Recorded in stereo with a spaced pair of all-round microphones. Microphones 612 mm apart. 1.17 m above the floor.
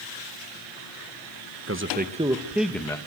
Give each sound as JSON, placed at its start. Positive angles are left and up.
{"t": 1.7, "sound": "a man speaking", "side_deg": -20, "distance_m": 1.4}